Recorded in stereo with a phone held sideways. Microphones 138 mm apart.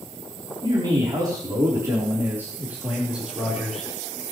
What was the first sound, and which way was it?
A man speaking, 35° right (ahead or behind).